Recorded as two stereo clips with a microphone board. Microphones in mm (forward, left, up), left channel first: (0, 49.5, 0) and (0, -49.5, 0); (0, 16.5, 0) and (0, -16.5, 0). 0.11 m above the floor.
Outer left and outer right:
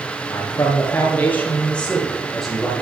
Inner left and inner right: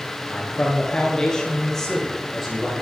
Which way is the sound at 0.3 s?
35° left (ahead or behind).